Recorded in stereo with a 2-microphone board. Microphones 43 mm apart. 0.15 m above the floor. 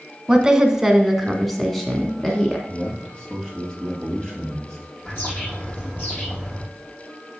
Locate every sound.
0.3 s a woman speaking: 20° right (ahead or behind), 1.1 m; by 2.6 s 15° left (ahead or behind), 1.3 m
2.7 s a man speaking: 15° left (ahead or behind), 4 m
5.0 s a bird: 45° left (ahead or behind), 5 m